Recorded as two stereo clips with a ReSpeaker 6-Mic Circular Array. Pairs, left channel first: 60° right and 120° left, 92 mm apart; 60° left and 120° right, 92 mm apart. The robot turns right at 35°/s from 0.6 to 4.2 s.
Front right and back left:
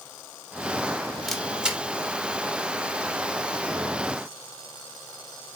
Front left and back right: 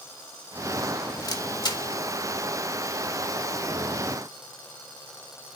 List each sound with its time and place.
1.3 s a camera shutter: 25° left, 0.5 m; by 1.8 s 45° left, 0.5 m